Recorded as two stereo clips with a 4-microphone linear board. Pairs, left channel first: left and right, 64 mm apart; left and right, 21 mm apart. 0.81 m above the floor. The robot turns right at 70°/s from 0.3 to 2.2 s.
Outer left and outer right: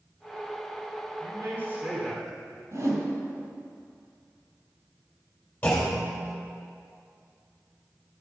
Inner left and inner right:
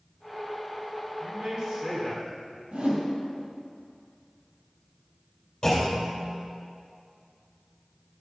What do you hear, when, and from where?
1.2 s a man speaking: 65° right, 2.5 m; by 2.6 s 5° left, 2.5 m
2.7 s a whoosh: 55° right (ahead or behind), 3 m
5.6 s a clunk: 25° left (ahead or behind), 3.5 m